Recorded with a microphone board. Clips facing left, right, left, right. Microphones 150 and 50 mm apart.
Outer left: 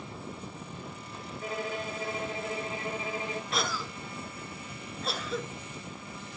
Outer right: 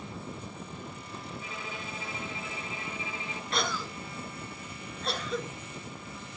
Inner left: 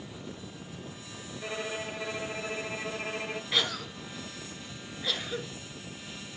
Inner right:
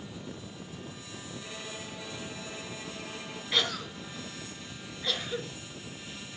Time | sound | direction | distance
1.4 | a violin | 50° left (ahead or behind) | 0.8 m
3.5 | a cough | centre (ahead or behind) | 1.6 m